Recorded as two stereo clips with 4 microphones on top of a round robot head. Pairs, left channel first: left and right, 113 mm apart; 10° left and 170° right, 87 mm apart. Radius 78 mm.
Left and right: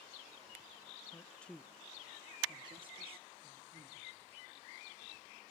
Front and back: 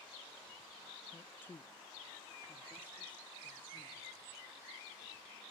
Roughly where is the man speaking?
Ahead left.